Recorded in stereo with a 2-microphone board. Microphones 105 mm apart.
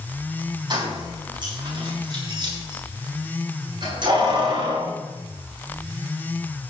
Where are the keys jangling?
45° right (ahead or behind), 6 m.